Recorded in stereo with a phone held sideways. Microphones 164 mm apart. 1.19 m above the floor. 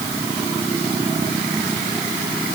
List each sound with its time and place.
Only background noise.